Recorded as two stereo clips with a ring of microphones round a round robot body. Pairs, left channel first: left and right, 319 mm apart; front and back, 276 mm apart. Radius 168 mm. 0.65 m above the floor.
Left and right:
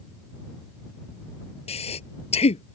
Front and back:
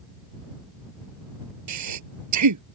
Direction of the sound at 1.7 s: 160° left.